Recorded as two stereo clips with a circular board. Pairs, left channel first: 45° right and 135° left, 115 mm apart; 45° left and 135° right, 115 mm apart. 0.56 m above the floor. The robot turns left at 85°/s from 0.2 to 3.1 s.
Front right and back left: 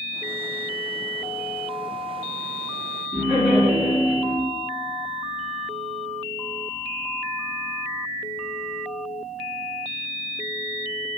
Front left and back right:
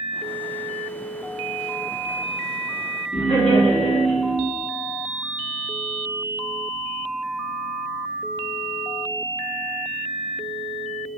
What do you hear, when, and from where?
3.1 s laughter: 55° left, 1.9 m